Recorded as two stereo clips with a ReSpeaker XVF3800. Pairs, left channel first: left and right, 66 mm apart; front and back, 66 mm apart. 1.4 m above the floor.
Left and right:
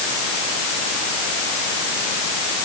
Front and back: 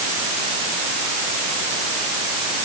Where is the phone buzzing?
No phone buzzing in this recording.